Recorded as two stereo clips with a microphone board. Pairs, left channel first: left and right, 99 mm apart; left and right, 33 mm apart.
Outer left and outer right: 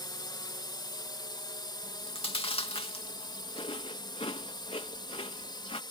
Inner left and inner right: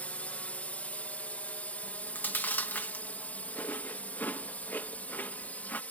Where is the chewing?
65° left (ahead or behind).